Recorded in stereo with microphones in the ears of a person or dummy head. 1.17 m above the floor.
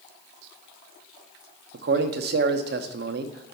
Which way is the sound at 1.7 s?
55° right (ahead or behind).